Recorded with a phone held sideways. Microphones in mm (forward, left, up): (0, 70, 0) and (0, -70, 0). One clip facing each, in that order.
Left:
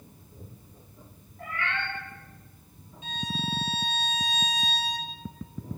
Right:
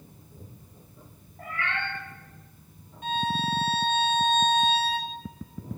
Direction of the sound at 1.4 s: 35° right (ahead or behind).